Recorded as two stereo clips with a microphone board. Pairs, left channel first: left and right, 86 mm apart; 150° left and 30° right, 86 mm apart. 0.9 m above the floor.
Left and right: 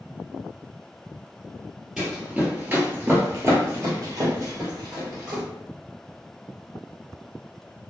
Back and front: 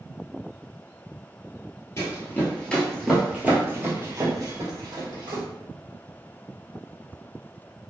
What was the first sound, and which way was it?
Running footsteps, 170° right.